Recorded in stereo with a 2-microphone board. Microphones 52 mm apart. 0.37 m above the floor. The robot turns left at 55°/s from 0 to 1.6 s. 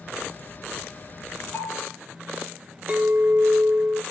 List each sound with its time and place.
1.5 s a bell: 45° left (ahead or behind), 5 m; by 1.9 s 50° left (ahead or behind), 5 m
2.9 s a clink: 25° right (ahead or behind), 0.8 m